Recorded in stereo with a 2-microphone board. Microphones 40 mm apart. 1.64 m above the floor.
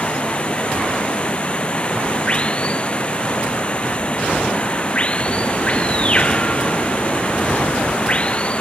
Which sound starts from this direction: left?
Running water, at 0.0 s.